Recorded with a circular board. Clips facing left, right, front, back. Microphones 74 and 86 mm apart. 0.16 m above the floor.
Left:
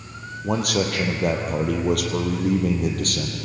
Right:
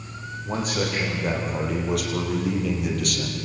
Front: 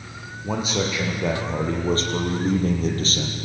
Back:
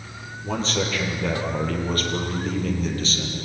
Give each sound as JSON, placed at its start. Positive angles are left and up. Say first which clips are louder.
{"t": 0.4, "sound": "a man speaking", "louder": "left 4 dB, front 1 dB", "azimuth_deg": 80, "distance_m": 4.5}